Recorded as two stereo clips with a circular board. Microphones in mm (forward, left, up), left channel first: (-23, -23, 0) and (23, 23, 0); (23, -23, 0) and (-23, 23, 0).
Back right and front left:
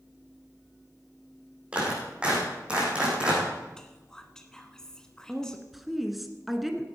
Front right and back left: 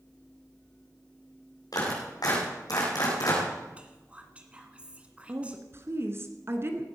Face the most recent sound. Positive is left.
turn(degrees=135)